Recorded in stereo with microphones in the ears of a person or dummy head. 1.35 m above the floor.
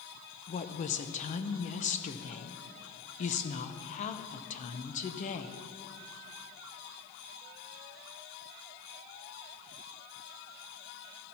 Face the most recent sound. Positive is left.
turn(degrees=40)  # may be behind; listen again after turning